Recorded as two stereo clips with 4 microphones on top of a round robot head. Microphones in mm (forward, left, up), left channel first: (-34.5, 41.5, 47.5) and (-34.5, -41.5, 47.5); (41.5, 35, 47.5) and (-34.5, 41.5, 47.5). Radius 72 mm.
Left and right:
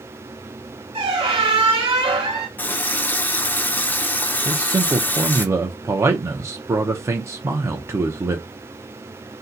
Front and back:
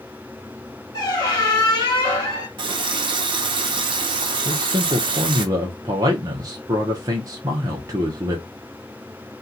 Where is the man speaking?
145° right, 0.6 m.